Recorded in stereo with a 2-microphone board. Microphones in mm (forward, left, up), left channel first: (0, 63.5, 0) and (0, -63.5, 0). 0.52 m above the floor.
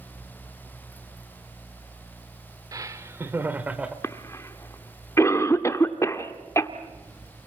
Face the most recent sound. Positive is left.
turn(degrees=25)  # may be behind; listen again after turning